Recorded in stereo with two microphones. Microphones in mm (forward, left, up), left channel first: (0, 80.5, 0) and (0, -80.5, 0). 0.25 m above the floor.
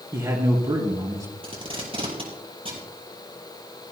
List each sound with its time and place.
0.1 s a man speaking: 25° right (ahead or behind), 3.5 m
1.4 s tape being pulled: 35° right (ahead or behind), 4 m